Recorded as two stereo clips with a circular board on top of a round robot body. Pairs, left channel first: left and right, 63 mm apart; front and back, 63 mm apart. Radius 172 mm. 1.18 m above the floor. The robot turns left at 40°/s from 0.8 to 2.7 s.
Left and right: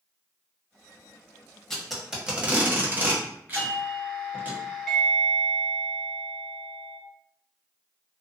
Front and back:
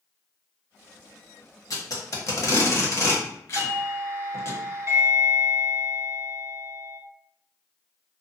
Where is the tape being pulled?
10° left, 1.0 m; by 4.5 s 30° right, 1.0 m.